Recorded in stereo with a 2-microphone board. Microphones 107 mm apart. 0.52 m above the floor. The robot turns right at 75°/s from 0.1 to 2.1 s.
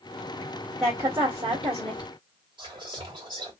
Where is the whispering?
55° right (ahead or behind), 1.8 m.